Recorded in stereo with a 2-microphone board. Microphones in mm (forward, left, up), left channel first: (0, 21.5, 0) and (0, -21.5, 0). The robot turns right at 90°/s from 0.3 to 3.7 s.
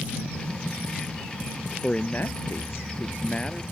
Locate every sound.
1.8 s a man speaking: 15° left; by 3.6 s 175° left